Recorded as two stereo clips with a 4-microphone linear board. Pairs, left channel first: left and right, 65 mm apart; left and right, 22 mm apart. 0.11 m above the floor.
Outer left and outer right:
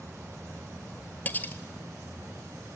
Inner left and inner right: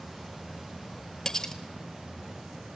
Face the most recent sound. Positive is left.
turn(degrees=25)  # may be behind; listen again after turning